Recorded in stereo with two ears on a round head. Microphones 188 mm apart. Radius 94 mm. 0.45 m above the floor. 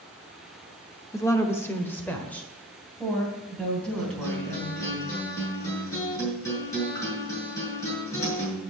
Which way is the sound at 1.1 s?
15° left (ahead or behind).